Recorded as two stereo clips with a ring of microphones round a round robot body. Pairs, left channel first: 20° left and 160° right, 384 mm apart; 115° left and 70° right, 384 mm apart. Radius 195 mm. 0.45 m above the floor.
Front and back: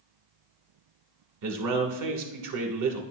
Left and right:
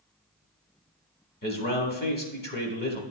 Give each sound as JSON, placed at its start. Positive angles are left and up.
{"t": 1.4, "sound": "a man speaking", "azimuth_deg": 175, "distance_m": 1.4}